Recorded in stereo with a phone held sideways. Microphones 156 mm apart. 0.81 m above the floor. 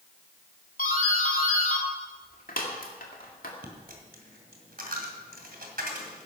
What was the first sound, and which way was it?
A doorbell, 65° left (ahead or behind).